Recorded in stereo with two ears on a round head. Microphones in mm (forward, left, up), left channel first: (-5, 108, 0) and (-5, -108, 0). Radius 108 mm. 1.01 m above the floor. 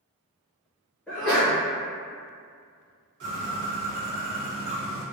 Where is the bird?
55° right (ahead or behind), 1.7 m.